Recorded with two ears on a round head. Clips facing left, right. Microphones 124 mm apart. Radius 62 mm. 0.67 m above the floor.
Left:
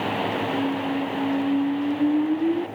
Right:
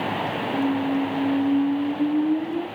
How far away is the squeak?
About 5 m.